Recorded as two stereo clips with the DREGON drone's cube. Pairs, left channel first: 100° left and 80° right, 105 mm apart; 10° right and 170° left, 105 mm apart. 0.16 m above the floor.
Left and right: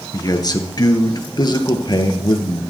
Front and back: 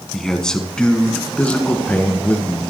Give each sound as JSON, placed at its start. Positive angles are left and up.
{"t": 0.1, "sound": "a man speaking", "azimuth_deg": 70, "distance_m": 1.5}